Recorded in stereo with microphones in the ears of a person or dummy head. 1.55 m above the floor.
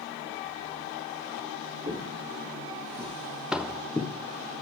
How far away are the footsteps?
About 5.5 m.